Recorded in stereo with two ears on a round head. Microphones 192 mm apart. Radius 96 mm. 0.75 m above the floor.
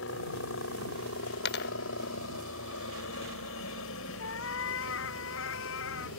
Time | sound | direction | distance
0.0 | a helicopter | 65° left (ahead or behind) | ?
1.4 | a dropped coin | 50° left (ahead or behind) | ?
4.2 | a cat meowing | 70° left (ahead or behind) | ?